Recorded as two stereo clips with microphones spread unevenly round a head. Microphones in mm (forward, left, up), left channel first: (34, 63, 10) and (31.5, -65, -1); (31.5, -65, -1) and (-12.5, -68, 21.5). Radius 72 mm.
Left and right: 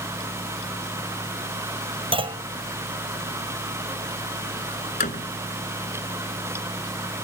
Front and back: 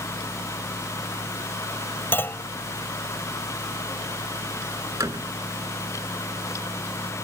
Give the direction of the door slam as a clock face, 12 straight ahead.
8 o'clock.